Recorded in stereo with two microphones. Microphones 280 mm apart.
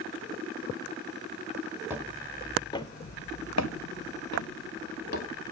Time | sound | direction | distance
1.9 | footsteps | 5° right (ahead or behind) | 1.8 m